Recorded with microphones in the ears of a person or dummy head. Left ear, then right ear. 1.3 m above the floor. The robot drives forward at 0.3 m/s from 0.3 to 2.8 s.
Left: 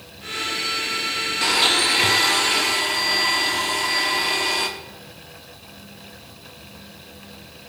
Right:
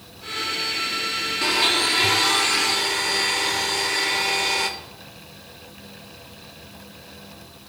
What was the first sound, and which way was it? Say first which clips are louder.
A blender: left 2 dB; 20° left (ahead or behind).